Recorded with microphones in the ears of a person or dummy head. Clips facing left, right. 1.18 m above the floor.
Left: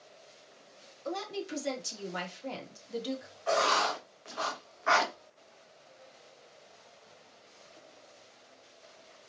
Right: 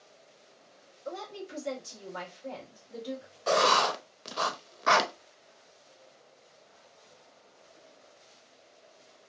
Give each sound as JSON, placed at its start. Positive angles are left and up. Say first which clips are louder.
{"t": 1.1, "sound": "a woman speaking", "louder": "left 3 dB", "side_deg": 70, "distance_m": 1.9}
{"t": 3.5, "sound": "writing", "louder": "right 3 dB", "side_deg": -50, "distance_m": 0.6}